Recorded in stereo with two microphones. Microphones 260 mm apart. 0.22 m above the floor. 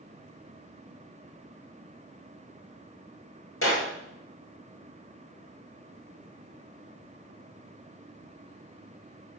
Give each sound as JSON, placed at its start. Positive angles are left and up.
{"t": 3.6, "sound": "a clap", "side_deg": 55, "distance_m": 2.5}